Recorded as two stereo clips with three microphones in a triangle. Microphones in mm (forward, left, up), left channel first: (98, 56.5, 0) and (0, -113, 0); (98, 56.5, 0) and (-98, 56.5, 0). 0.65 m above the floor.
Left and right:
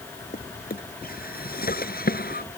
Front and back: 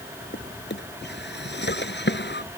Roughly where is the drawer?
Ahead.